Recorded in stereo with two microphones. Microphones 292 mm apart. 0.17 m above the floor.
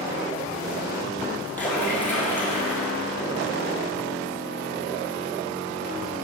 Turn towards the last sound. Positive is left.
turn(degrees=5)  # may be behind; listen again after turning